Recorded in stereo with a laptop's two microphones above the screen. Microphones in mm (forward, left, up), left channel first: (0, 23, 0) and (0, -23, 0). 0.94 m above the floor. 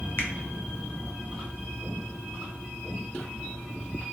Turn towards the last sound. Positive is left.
turn(degrees=45)  # may be behind; listen again after turning